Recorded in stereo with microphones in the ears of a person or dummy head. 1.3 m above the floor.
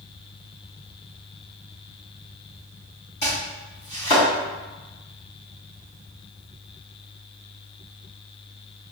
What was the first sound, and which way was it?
Chopping, 35° left (ahead or behind).